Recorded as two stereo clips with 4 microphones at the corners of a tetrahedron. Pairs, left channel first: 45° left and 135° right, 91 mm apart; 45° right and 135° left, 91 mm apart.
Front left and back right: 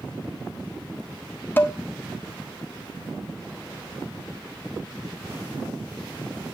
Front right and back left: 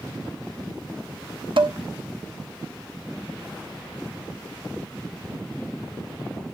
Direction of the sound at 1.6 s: 110° left.